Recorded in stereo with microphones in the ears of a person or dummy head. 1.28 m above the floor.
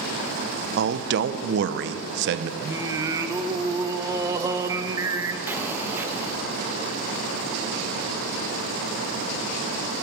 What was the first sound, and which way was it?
A man speaking, 65° right (ahead or behind).